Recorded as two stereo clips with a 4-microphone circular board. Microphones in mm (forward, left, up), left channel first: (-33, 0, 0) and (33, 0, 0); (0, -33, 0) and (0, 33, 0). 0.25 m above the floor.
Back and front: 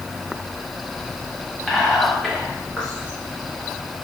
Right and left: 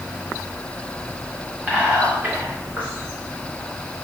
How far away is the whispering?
About 1.0 m.